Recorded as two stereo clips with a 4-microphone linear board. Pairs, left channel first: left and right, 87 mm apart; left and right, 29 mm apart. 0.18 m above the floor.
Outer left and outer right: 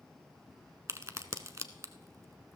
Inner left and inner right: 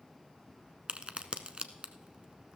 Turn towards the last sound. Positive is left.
turn(degrees=-40)  # may be behind; listen again after turning